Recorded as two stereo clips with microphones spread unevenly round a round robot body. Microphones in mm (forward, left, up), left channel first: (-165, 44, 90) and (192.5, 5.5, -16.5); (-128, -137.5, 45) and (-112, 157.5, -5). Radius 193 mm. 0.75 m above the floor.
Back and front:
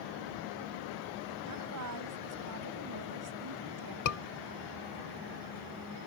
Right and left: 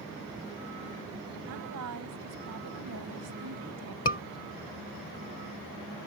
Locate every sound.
1.5 s a woman speaking: 35° left
4.0 s a scream: 140° right